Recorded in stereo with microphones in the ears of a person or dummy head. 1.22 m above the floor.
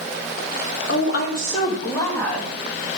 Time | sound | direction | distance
0.9 | a woman speaking | 70° left (ahead or behind) | 1.4 m